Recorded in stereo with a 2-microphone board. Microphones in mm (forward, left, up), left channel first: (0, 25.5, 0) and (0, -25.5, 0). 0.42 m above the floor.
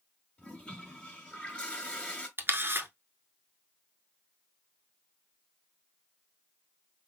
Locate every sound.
0.4 s a toilet flushing: 20° left (ahead or behind), 1.5 m
2.4 s a camera shutter: 45° right (ahead or behind), 0.8 m